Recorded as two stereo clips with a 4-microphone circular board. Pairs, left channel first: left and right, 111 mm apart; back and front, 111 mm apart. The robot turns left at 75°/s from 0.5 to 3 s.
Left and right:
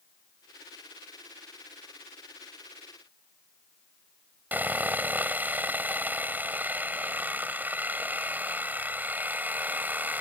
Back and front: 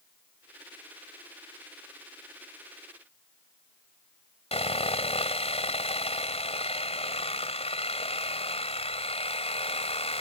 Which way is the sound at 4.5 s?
165° right.